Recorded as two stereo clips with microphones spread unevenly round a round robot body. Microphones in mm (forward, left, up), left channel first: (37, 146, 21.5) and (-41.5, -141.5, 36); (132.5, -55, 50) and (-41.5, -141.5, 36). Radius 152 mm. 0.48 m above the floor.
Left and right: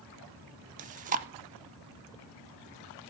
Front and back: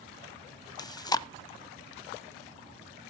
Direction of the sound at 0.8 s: 40° right.